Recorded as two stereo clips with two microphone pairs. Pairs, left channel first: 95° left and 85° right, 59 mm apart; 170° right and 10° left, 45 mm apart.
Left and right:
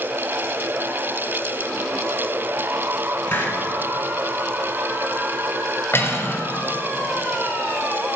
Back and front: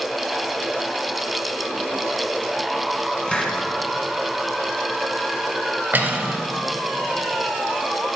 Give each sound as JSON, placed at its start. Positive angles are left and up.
{"t": 3.3, "sound": "a hiss", "azimuth_deg": 135, "distance_m": 1.6}
{"t": 5.9, "sound": "cutlery clinking", "azimuth_deg": 50, "distance_m": 1.7}